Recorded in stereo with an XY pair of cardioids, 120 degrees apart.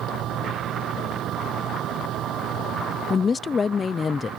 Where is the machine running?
65° right.